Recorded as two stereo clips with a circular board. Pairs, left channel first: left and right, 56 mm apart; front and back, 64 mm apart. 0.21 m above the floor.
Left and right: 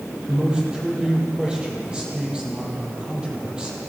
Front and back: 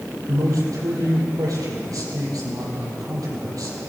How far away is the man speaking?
About 6 m.